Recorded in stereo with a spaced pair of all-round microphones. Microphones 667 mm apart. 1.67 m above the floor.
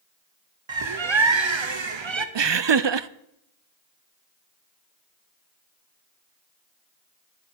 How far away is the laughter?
About 0.5 m.